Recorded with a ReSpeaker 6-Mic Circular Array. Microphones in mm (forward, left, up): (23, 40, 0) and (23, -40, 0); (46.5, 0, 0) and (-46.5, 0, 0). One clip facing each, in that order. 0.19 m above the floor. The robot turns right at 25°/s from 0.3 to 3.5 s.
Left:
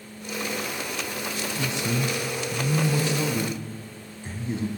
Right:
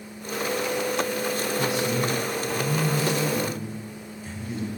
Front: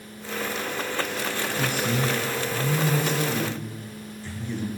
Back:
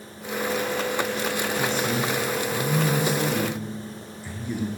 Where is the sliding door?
I don't hear a sliding door.